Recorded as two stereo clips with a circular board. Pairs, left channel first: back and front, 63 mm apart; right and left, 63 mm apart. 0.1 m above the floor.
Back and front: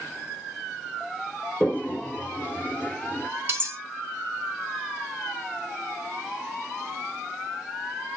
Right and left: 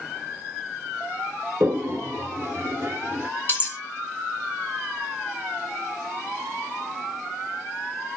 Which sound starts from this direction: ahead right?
Cutlery clinking, at 3.5 s.